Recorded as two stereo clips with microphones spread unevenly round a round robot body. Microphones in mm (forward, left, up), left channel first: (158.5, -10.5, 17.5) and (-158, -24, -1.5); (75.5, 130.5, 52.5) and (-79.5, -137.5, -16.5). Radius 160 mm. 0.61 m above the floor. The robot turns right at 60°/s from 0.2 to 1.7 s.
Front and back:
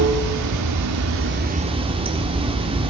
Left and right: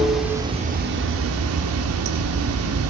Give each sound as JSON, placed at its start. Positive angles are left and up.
{"t": 0.0, "sound": "running water", "azimuth_deg": 160, "distance_m": 1.5}